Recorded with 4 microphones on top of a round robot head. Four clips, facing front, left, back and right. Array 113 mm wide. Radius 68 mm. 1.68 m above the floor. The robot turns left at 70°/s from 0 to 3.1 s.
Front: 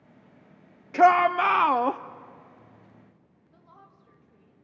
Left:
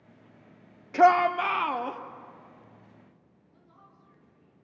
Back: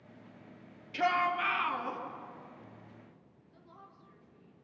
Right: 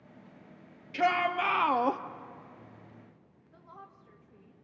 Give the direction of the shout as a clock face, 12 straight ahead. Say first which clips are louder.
Left 8 dB, front 11 dB; 11 o'clock.